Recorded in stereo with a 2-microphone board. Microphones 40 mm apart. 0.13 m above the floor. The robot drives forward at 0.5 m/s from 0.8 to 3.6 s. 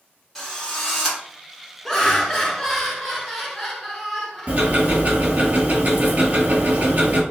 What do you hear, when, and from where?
0.3 s a drill: 5° left (ahead or behind), 1.5 m
1.9 s laughter: 10° left (ahead or behind), 1.1 m; by 5.5 s 5° left (ahead or behind), 1.6 m
4.5 s ticking: 45° right (ahead or behind), 0.9 m